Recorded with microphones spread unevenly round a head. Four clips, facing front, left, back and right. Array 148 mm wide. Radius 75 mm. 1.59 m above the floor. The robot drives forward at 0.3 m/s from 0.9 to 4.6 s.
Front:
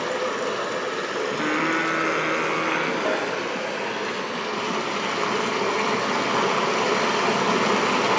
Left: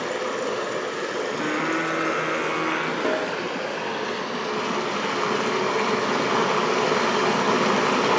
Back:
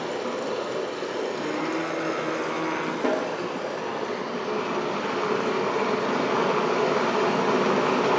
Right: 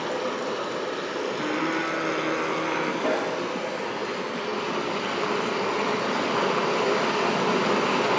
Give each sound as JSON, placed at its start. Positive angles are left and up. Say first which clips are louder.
{"t": 0.0, "sound": "running water", "louder": "left 1 dB, front 3 dB", "azimuth_deg": 5, "distance_m": 1.8}
{"t": 1.3, "sound": "singing", "louder": "left 1 dB, front 4 dB", "azimuth_deg": 0, "distance_m": 0.7}
{"t": 3.0, "sound": "a snare drum", "louder": "left 1 dB, even", "azimuth_deg": -165, "distance_m": 2.0}